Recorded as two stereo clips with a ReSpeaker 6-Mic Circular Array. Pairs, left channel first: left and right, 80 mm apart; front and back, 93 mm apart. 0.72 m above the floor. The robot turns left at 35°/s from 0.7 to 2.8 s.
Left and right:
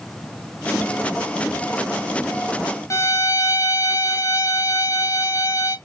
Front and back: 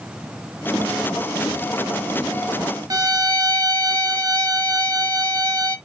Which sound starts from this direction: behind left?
A violin, at 2.9 s.